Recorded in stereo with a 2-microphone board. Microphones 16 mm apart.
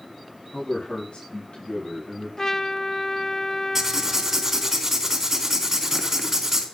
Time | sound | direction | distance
0.5 | a man speaking | 85° left | 9 m
2.4 | a trumpet | 30° left (ahead or behind) | 1.0 m
3.8 | writing | 25° right (ahead or behind) | 3 m